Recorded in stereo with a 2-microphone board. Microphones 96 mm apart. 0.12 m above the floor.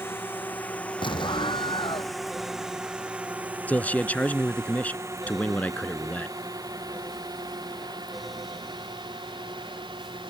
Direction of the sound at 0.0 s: 20° left (ahead or behind).